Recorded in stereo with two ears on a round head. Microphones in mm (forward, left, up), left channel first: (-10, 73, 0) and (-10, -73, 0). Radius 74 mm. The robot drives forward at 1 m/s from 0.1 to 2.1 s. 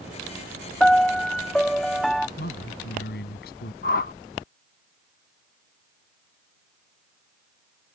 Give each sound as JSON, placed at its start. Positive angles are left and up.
{"t": 0.8, "sound": "a piano", "side_deg": 5}
{"t": 2.4, "sound": "a man speaking", "side_deg": 60}
{"t": 3.8, "sound": "a whoosh", "side_deg": 55}